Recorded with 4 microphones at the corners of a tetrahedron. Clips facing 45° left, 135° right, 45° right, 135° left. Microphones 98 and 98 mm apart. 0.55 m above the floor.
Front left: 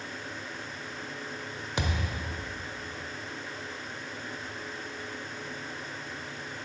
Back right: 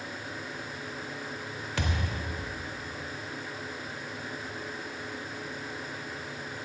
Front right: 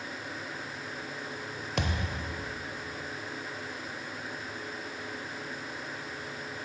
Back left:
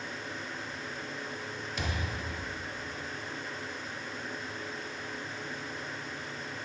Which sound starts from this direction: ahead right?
A thud, at 1.8 s.